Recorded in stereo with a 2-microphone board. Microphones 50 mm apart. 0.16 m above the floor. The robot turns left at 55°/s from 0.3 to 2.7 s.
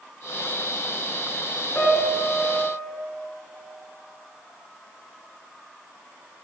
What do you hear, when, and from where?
1.8 s a piano: 70° left, 2.5 m; by 2.9 s 15° left, 2.5 m